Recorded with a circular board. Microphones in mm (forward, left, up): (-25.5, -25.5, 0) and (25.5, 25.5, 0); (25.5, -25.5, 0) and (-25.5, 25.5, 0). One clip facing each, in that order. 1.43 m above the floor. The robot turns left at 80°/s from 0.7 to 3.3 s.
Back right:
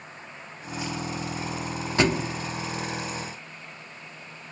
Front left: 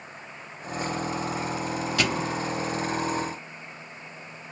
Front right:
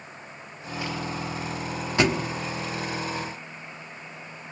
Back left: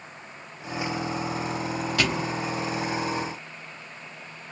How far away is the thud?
About 1.0 m.